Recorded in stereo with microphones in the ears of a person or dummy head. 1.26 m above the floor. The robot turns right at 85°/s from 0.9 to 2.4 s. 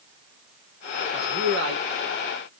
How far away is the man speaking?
About 1.7 m.